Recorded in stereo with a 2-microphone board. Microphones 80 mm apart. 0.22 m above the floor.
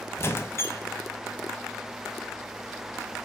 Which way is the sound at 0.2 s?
30° left (ahead or behind).